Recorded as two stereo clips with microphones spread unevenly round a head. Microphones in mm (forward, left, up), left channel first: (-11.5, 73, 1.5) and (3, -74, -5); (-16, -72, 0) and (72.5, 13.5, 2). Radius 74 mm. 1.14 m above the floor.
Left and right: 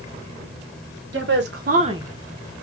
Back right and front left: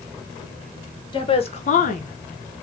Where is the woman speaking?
85° right, 1.2 m; by 2.6 s 160° left, 1.0 m.